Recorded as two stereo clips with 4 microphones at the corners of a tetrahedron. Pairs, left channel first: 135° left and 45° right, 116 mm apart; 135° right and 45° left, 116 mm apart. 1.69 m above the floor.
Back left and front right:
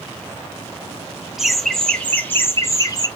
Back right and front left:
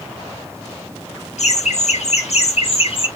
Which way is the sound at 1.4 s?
130° right.